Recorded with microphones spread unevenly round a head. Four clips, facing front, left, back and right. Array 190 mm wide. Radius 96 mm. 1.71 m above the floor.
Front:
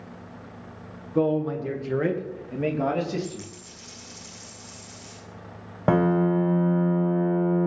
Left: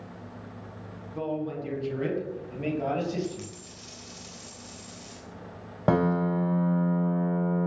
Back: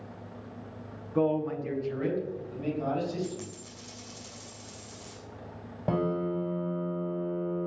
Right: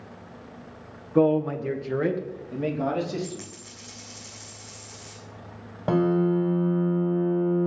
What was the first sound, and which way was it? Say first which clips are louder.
A man speaking: right 11 dB, front 4 dB; 75° right.